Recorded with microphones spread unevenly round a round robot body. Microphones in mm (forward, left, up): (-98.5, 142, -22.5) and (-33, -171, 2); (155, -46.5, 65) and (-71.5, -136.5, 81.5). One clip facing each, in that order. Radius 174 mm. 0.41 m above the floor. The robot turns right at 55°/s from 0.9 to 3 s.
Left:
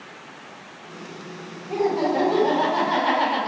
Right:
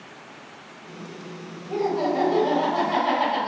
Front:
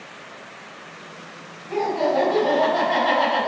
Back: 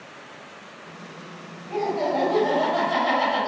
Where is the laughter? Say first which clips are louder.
Left 2 dB, front 3 dB; 65° left, 1.2 m; by 3.5 s 135° left, 1.2 m.